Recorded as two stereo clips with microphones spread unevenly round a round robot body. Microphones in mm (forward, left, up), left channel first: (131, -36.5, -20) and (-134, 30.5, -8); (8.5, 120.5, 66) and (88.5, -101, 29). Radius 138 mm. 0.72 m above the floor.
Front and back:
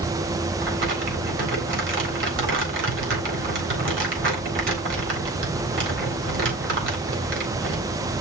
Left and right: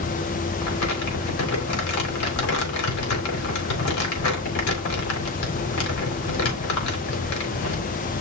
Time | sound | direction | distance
0.6 | crumpling | 115° left | 4 m